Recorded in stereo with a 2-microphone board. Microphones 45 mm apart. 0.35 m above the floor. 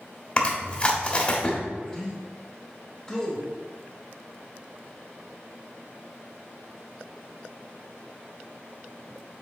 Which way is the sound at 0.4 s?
25° left (ahead or behind).